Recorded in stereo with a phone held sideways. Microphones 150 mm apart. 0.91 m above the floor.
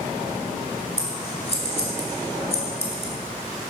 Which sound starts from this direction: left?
Scissors, at 1.0 s.